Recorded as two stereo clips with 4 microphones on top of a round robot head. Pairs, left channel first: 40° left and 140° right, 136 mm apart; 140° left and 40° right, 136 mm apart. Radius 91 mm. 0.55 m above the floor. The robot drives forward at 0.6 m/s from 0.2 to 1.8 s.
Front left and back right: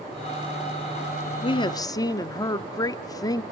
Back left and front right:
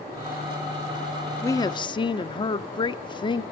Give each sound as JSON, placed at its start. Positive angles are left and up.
{"t": 1.4, "sound": "a woman speaking", "azimuth_deg": 75, "distance_m": 0.9}